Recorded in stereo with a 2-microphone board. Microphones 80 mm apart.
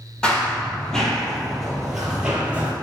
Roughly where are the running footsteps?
Centre.